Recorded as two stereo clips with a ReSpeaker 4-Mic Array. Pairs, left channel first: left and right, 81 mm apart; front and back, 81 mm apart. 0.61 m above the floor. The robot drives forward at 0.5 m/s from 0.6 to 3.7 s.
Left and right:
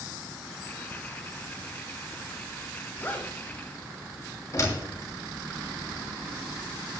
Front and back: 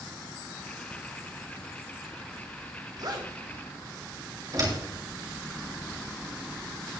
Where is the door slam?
140° left, 6 m.